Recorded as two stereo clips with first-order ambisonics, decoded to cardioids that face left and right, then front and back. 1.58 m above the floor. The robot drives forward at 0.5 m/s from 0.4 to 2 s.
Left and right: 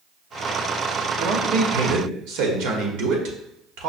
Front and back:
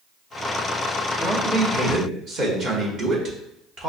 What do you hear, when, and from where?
1.2 s a man speaking: 95° right, 0.9 m; by 3.9 s 115° right, 1.0 m